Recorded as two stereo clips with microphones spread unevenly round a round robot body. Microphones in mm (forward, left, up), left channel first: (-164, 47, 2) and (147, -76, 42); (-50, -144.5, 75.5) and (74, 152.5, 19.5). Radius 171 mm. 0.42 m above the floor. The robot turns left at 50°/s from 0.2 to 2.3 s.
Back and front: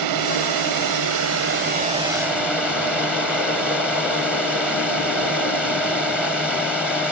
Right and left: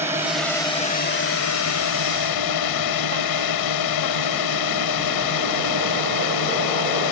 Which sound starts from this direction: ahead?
A drone, at 0.0 s.